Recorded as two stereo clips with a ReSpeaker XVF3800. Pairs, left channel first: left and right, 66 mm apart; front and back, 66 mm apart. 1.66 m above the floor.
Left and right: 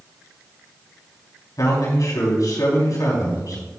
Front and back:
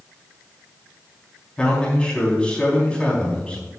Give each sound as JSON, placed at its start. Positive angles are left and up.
{"t": 1.6, "sound": "a man speaking", "azimuth_deg": 70, "distance_m": 4.0}